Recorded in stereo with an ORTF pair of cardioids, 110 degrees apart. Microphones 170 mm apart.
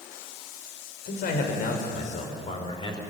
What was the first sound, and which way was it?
A man speaking, 65° left.